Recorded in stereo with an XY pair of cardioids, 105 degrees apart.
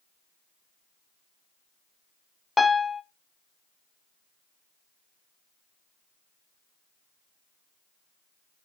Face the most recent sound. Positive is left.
turn(degrees=20)